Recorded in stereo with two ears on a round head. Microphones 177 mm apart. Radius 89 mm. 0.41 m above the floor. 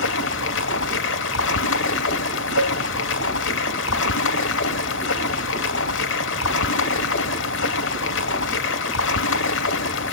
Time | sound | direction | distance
0.0 | running water | 65° left (ahead or behind) | 0.9 m
2.6 | a cowbell | 75° right (ahead or behind) | 3.5 m